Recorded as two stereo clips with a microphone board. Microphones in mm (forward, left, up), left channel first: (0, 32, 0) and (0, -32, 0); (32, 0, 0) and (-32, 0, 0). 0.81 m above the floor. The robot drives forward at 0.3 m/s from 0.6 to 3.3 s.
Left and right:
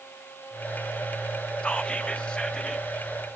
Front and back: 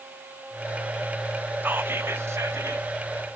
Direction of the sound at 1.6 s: 150° left.